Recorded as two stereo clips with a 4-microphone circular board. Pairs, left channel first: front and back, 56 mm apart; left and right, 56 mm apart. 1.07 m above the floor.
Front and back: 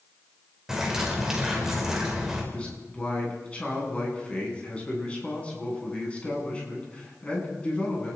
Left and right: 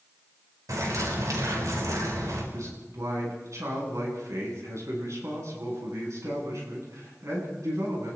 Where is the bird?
100° right, 5 m.